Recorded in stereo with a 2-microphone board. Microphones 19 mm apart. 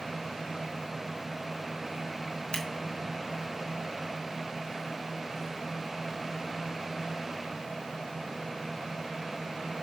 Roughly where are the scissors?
Left.